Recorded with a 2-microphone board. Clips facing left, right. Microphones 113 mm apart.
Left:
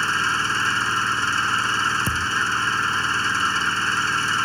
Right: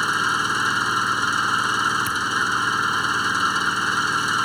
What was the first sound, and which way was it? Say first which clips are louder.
An engine running: right 1 dB; 15° right (ahead or behind).